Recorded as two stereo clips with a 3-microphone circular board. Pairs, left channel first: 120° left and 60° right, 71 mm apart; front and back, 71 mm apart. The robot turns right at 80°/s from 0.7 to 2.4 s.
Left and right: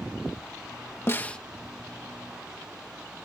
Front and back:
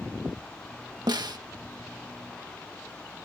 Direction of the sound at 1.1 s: 175° left.